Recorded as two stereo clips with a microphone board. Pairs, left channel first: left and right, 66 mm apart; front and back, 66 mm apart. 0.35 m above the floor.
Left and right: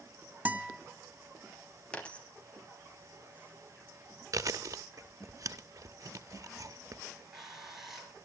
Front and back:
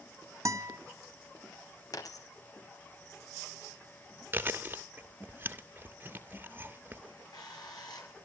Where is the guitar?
155° right, 1.4 m.